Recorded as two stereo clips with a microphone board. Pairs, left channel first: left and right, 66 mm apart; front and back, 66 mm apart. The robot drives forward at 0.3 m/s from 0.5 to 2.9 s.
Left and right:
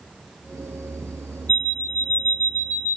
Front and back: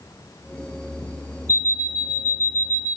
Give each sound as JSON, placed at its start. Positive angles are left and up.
{"t": 1.5, "sound": "an alarm clock", "azimuth_deg": 30, "distance_m": 1.1}